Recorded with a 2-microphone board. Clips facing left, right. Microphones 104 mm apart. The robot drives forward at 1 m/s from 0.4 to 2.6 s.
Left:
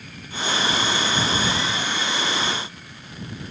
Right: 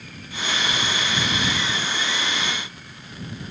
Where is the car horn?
I don't hear a car horn.